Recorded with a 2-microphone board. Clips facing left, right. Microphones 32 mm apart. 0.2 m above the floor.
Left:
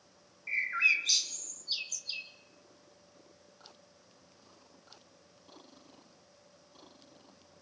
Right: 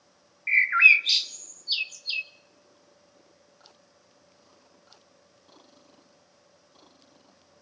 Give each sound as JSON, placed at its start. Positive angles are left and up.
{"t": 0.5, "sound": "a bird", "side_deg": -45, "distance_m": 0.6}